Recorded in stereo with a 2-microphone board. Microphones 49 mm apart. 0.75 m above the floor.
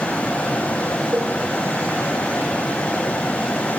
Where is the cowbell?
55° right (ahead or behind), 4.5 m.